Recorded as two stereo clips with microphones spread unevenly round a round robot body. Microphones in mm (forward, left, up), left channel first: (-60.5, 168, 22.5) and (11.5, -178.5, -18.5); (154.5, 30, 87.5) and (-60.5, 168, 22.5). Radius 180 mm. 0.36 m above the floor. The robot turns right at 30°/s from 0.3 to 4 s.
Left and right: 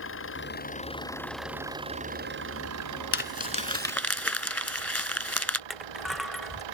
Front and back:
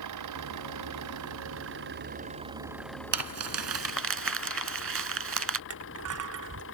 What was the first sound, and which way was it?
An engine running, 160° left.